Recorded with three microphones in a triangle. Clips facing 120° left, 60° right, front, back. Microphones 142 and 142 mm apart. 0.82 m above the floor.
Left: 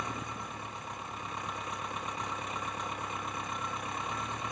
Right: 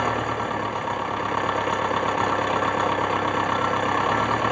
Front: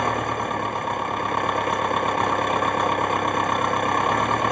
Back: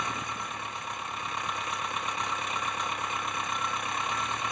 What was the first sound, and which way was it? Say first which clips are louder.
An engine running: right 15 dB, front 12 dB; 35° right.